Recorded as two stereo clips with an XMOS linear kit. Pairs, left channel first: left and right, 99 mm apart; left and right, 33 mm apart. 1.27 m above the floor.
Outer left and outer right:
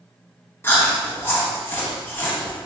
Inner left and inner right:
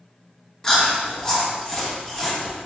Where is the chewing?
20° left (ahead or behind), 0.8 m.